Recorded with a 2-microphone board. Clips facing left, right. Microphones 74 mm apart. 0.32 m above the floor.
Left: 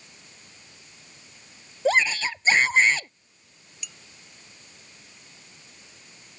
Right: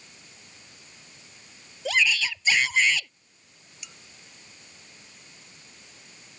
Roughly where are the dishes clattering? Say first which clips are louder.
Left 3 dB; right.